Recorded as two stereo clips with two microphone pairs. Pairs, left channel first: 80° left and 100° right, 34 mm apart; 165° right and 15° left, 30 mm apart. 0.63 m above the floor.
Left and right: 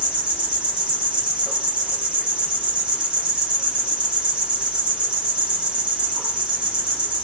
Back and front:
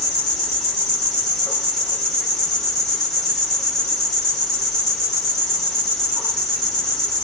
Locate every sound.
0.0 s an insect: 95° right, 1.0 m